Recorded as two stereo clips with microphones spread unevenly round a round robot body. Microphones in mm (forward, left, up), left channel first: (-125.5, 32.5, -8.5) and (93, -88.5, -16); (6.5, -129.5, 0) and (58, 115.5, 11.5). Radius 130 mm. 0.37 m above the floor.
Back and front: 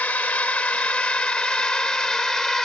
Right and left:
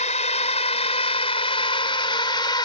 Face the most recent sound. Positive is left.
turn(degrees=-125)